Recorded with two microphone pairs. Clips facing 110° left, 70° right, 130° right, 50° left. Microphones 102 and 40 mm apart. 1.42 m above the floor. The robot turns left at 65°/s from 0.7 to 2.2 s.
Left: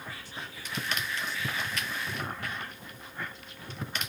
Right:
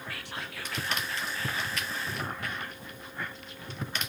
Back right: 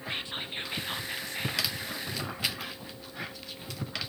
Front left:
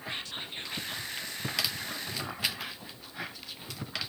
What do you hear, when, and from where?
0.1 s whispering: 65° right, 0.5 m; by 1.8 s 135° right, 0.5 m